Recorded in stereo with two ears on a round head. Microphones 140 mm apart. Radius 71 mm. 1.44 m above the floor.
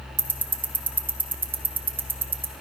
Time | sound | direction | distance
0.2 | ticking | 15° right (ahead or behind) | 0.5 m